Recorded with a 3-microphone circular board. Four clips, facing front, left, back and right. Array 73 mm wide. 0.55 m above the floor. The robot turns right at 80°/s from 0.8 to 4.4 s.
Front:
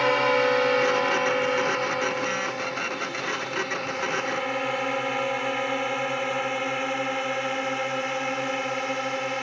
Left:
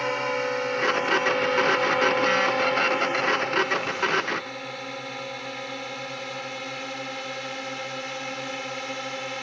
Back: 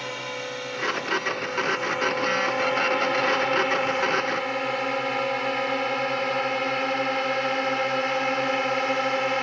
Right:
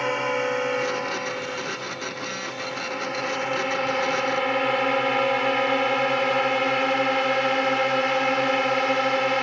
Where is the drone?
5° right; by 9.4 s 115° right.